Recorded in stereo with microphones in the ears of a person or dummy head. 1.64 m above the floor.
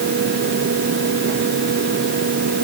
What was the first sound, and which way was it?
Only background noise.